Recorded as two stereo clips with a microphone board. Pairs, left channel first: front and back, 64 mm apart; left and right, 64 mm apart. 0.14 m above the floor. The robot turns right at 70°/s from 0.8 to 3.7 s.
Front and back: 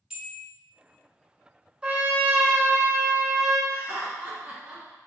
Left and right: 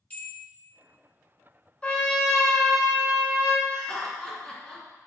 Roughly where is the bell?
Behind left.